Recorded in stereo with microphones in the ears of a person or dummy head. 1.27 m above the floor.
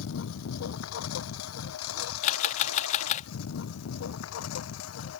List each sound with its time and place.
0.0 s a lawn mower: 75° left (ahead or behind); by 5.2 s 85° left
2.2 s a camera shutter: 40° left (ahead or behind)